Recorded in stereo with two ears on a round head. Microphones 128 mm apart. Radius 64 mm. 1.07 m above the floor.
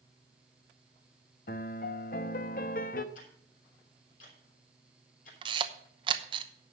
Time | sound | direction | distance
1.5 | a piano | 60° left (ahead or behind) | 0.7 m
3.1 | ticking | 60° left (ahead or behind) | 3.5 m
5.4 | a camera shutter | 35° right (ahead or behind) | 0.8 m